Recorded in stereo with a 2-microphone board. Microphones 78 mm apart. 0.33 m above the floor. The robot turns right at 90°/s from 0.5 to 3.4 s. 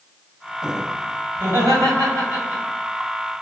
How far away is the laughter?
About 1.7 m.